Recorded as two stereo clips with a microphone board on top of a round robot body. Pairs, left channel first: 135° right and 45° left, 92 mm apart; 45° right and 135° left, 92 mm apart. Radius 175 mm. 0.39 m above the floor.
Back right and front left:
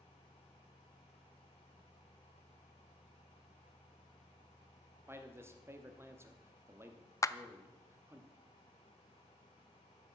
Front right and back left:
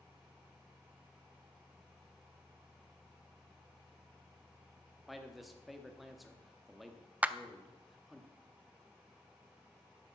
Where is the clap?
160° right, 0.7 m.